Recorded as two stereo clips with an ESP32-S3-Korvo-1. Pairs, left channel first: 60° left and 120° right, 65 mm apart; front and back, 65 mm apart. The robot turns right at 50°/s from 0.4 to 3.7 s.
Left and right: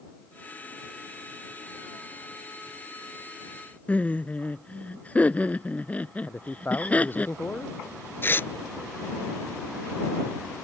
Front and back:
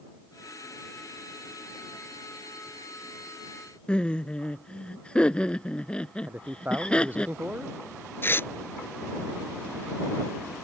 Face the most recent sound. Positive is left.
turn(degrees=30)